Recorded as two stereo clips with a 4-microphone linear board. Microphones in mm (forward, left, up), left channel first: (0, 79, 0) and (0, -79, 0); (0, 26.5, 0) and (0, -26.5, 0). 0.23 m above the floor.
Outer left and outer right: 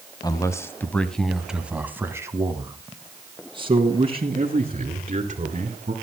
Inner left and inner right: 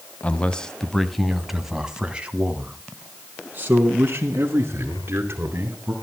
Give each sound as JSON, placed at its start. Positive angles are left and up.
{"t": 0.2, "sound": "a man speaking", "side_deg": 25, "distance_m": 1.3}